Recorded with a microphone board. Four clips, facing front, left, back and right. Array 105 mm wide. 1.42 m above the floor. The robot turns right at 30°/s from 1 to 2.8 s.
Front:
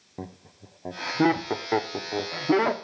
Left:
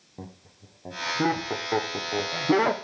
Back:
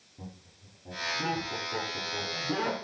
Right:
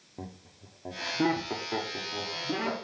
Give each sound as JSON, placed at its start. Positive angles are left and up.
{"t": 0.2, "sound": "laughter", "azimuth_deg": 0, "distance_m": 0.8}